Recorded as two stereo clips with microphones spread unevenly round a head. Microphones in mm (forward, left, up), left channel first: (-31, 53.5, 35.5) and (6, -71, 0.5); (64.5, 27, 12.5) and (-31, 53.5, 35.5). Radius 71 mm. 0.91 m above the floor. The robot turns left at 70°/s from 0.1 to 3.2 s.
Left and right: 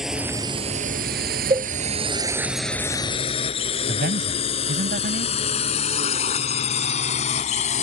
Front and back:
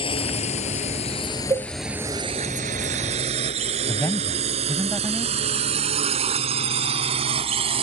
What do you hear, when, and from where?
0.0 s a drone: 15° left; by 7.8 s 140° left
1.5 s a cowbell: 135° right; by 1.7 s 150° right
3.9 s a man speaking: 95° right